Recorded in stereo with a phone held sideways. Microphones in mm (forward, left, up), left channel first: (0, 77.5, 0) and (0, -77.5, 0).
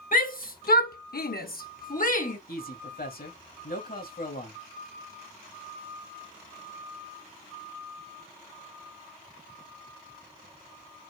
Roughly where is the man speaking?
Left.